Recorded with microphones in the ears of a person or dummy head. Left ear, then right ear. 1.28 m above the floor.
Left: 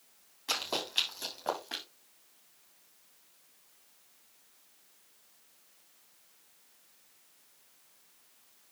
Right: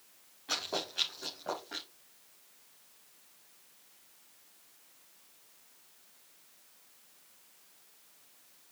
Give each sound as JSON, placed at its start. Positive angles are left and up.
{"t": 0.5, "sound": "running footsteps", "side_deg": 60, "distance_m": 6.5}